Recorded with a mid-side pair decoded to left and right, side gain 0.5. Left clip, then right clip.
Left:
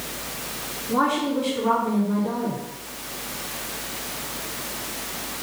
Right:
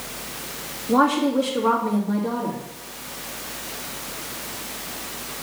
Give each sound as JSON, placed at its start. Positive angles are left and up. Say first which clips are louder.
{"t": 0.9, "sound": "a woman speaking", "louder": "right 3 dB", "azimuth_deg": -65, "distance_m": 3.0}